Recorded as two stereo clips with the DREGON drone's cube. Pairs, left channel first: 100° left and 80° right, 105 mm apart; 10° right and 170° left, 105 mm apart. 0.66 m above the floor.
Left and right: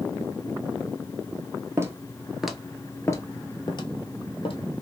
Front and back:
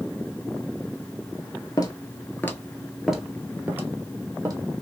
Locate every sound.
1.8 s footsteps: 30° right, 0.8 m; by 4.6 s 115° left, 1.1 m